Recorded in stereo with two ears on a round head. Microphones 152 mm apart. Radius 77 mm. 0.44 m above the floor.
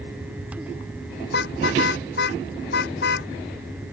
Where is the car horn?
65° left (ahead or behind).